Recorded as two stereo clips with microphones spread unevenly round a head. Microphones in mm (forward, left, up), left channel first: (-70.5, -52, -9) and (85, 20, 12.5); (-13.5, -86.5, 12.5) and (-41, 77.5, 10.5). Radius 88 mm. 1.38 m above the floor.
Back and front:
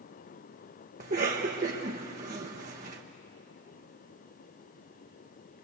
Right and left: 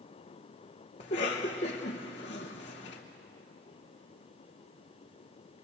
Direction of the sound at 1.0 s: 20° right.